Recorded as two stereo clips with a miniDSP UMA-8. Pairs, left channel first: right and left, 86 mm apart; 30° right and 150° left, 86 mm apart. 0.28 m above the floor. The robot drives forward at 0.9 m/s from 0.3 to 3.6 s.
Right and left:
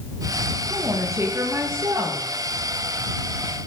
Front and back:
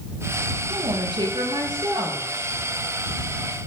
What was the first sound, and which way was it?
A woman speaking, 135° left.